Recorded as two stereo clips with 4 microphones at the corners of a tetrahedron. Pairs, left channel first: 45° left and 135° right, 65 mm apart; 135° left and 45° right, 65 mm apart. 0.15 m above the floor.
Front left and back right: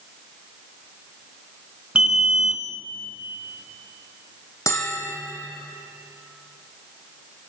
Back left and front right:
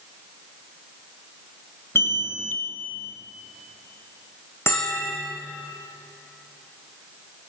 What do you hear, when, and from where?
1.9 s an alarm: 155° left, 1.6 m
4.7 s a bell: 85° left, 4 m